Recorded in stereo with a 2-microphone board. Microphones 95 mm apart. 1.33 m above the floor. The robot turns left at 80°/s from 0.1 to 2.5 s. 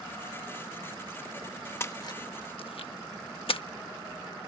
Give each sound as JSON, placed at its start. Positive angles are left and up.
{"t": 1.8, "sound": "a splash", "side_deg": 25}